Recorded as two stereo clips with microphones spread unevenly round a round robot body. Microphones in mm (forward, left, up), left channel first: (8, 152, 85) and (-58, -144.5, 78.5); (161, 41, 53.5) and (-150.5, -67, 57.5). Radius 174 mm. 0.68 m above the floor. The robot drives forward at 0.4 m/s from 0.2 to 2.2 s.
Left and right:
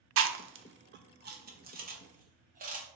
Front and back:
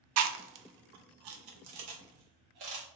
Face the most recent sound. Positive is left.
turn(degrees=-165)